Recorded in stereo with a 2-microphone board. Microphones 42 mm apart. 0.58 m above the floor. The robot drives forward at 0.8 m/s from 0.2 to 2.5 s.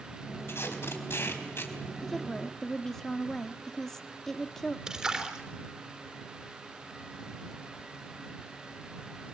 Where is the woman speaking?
10° left (ahead or behind), 1.4 m.